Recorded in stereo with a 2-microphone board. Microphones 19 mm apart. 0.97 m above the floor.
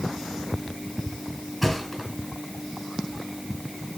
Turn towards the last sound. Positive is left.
turn(degrees=5)  # may be behind; listen again after turning